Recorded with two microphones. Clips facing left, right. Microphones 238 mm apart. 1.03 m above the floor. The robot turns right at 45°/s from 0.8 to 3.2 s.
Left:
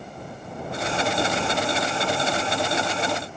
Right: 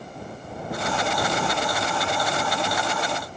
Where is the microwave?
No microwave in this recording.